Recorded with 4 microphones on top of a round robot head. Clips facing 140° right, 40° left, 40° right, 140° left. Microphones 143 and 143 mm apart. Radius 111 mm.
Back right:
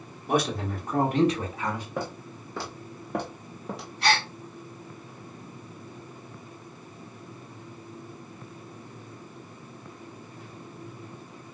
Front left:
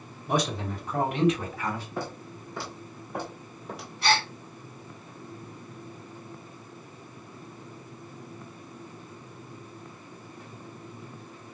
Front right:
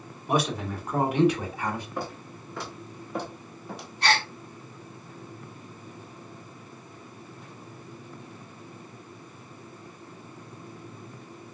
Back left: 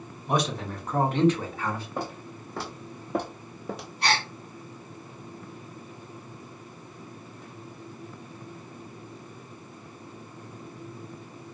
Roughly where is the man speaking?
Behind right.